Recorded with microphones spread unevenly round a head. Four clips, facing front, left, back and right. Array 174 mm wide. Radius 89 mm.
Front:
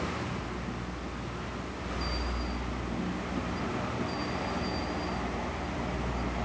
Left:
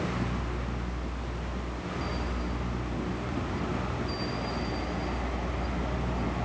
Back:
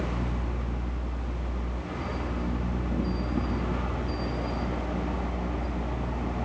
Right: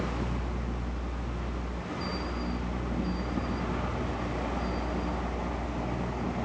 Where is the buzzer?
I don't hear a buzzer.